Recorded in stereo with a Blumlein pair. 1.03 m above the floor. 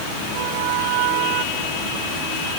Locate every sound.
Only background noise.